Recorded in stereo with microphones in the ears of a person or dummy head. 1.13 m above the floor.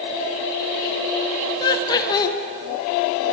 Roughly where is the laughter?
Left.